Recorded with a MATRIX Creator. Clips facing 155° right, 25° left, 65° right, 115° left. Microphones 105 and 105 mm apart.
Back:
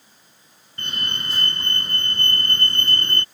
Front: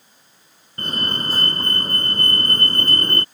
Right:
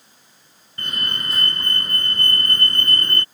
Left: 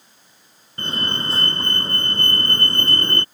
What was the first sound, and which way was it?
A fire alarm, 60° left.